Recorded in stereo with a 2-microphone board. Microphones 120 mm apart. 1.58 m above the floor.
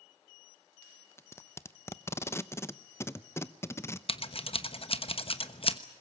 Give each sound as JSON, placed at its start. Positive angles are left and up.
{"t": 1.2, "sound": "tape being pulled", "side_deg": 20, "distance_m": 0.7}
{"t": 4.1, "sound": "scissors", "side_deg": 50, "distance_m": 1.1}